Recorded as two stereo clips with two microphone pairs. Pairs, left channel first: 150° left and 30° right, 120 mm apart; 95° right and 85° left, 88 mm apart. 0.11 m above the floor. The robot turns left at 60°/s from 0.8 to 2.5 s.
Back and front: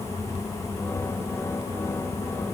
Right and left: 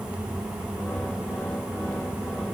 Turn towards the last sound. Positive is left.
No sound to turn to.